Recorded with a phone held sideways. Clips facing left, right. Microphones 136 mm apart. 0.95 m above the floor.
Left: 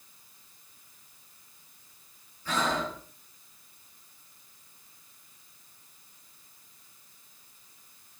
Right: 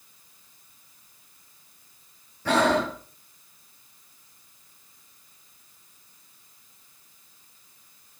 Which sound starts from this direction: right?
Breathing, at 2.5 s.